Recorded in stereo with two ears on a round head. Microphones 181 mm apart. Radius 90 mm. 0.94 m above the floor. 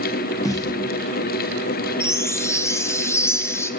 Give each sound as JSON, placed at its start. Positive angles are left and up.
{"t": 0.4, "sound": "a snare drum", "side_deg": 15, "distance_m": 0.5}
{"t": 2.0, "sound": "a chime", "side_deg": 15, "distance_m": 0.5}